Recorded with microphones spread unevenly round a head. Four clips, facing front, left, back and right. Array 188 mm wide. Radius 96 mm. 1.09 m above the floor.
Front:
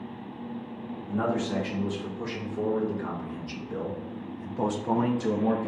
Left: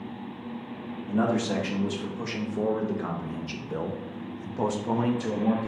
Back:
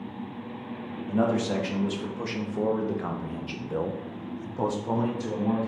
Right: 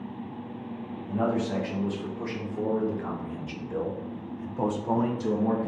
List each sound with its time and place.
1.1 s a man speaking: 155° left, 2 m; by 5.7 s 15° right, 0.8 m